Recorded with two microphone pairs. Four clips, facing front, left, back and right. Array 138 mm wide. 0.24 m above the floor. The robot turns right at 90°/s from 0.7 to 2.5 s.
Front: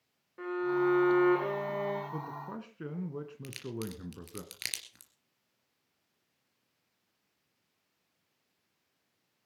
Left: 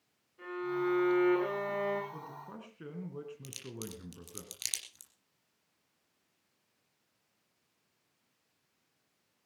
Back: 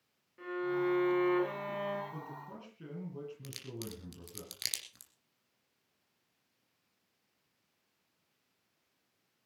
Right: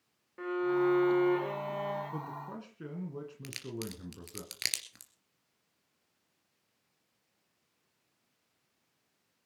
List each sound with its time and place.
0.4 s a violin: 55° right, 8 m; by 2.0 s 65° left, 8 m
2.1 s a man speaking: 40° right, 2.5 m; by 4.4 s 5° right, 2.5 m
3.4 s a crack: 80° right, 3 m